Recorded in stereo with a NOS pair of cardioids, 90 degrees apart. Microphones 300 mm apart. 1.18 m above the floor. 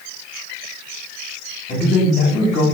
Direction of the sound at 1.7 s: 25° left.